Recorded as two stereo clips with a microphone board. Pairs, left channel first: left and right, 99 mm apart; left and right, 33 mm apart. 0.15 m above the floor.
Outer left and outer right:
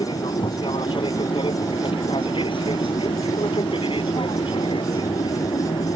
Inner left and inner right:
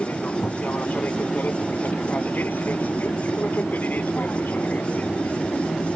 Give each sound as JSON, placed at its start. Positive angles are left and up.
{"t": 0.0, "sound": "an aircraft", "side_deg": 55}